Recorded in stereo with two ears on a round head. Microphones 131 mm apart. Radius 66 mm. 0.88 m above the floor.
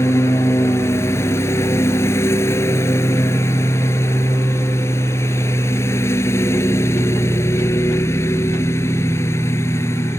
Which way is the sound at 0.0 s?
20° left (ahead or behind).